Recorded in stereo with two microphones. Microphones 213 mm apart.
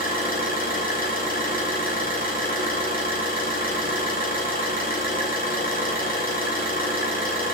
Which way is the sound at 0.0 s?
45° left (ahead or behind).